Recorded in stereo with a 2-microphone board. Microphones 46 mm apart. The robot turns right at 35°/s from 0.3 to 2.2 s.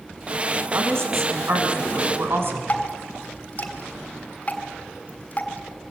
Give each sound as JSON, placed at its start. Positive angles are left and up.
{"t": 0.7, "sound": "a woman speaking", "azimuth_deg": -110, "distance_m": 5.5}
{"t": 2.7, "sound": "dripping", "side_deg": 35, "distance_m": 3.0}